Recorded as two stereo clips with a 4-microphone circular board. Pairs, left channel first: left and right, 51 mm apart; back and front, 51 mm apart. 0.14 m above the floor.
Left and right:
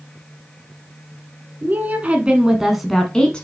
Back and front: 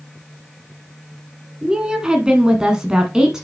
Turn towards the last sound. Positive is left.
turn(degrees=60)